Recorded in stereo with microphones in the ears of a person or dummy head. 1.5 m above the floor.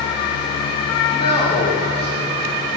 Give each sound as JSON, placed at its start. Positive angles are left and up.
{"t": 1.1, "sound": "a man speaking", "side_deg": 35, "distance_m": 3.5}